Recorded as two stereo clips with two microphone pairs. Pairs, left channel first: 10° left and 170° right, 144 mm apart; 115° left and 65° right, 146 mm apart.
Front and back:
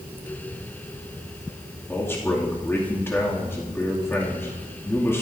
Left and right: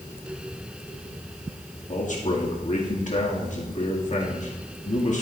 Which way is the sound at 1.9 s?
85° left.